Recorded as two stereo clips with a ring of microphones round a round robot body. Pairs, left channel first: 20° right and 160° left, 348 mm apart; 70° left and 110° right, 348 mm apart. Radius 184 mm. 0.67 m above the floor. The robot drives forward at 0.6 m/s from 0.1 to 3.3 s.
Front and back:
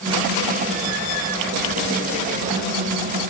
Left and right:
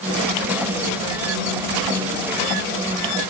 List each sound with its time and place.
Only background noise.